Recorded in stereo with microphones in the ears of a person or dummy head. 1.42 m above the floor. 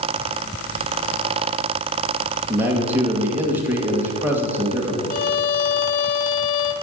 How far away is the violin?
About 0.9 m.